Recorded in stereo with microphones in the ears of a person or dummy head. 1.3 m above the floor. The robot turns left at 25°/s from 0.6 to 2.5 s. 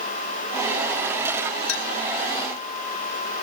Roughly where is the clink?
Left.